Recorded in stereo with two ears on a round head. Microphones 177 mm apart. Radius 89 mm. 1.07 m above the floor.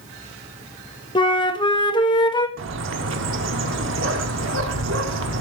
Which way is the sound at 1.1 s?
25° left (ahead or behind).